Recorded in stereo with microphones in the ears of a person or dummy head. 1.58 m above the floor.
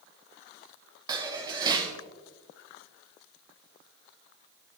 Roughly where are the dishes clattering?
Right.